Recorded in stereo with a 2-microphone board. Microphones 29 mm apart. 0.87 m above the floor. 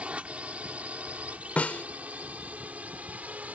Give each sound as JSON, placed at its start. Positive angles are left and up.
{"t": 0.0, "sound": "a drone", "side_deg": -50}
{"t": 1.6, "sound": "a snare drum", "side_deg": 65}